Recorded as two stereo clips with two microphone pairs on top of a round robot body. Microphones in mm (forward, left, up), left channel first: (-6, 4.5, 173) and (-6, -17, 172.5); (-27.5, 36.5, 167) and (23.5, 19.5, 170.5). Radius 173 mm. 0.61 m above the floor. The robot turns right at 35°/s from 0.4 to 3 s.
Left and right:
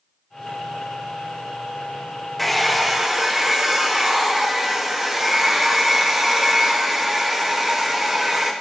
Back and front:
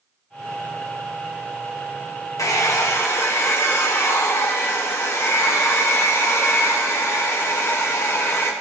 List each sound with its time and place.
2.4 s a hair dryer: 175° left, 1.7 m; by 8.5 s 160° right, 1.7 m